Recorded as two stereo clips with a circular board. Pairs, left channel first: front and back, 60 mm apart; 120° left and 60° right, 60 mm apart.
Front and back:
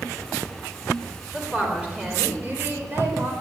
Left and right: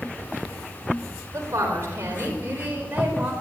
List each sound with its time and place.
1.3 s a woman speaking: 100° right, 4 m; by 3.3 s 130° right, 4.5 m